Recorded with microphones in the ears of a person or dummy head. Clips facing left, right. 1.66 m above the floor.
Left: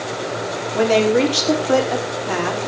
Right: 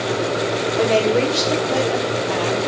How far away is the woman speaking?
About 5.5 m.